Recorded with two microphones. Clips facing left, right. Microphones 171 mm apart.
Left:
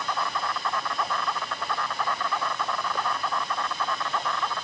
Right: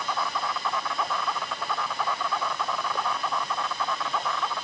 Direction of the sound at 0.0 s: Centre (ahead or behind).